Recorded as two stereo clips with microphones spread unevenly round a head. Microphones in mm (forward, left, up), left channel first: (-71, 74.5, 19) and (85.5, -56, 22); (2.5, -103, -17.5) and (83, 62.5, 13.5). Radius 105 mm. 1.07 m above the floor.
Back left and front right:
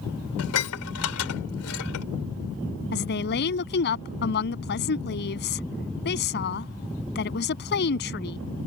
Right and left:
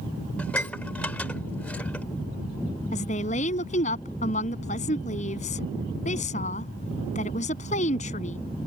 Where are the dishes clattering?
160° left.